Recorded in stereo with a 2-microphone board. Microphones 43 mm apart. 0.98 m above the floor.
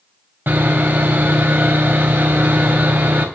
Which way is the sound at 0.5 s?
50° right (ahead or behind).